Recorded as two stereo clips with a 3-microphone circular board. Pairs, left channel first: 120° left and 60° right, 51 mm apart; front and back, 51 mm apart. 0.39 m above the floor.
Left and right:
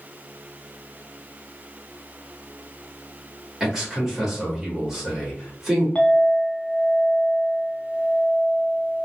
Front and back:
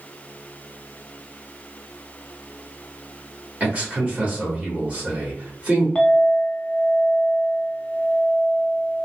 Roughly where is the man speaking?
Behind right.